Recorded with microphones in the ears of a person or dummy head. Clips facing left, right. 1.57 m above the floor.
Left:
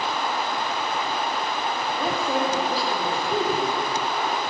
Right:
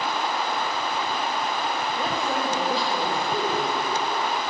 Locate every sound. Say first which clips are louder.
2.0 s a woman speaking: left 4 dB; 10° left (ahead or behind), 3 m